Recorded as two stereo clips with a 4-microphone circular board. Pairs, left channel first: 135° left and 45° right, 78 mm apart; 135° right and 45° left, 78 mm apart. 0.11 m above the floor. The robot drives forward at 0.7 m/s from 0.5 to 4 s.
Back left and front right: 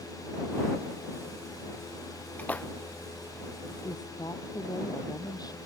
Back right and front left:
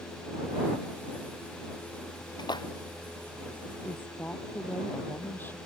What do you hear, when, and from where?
2.4 s a splash: 155° right
3.8 s a woman speaking: 160° left